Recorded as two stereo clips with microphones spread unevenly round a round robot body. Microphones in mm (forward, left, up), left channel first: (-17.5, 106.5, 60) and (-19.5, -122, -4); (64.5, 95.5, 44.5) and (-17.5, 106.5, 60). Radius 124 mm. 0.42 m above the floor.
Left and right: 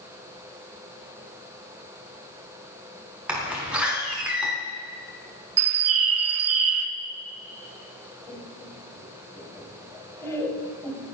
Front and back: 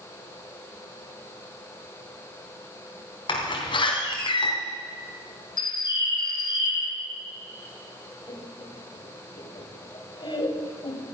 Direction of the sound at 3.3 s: 10° right.